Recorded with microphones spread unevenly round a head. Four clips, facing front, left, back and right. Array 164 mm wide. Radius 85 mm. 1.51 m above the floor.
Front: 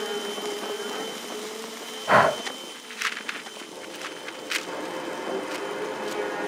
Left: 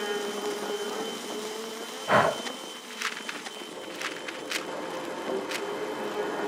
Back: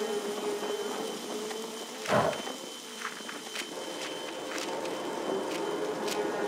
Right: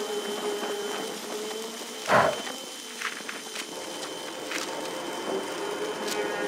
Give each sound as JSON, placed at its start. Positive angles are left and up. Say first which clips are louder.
{"t": 2.1, "sound": "breathing", "louder": "right 1 dB, front 8 dB", "azimuth_deg": -25, "distance_m": 0.7}